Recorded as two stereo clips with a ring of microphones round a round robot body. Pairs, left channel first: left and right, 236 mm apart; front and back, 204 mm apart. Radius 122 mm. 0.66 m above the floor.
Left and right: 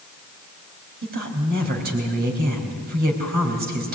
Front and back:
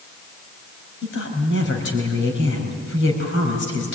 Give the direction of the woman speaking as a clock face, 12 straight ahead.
1 o'clock.